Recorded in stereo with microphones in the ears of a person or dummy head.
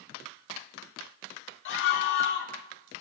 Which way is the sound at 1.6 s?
65° left (ahead or behind).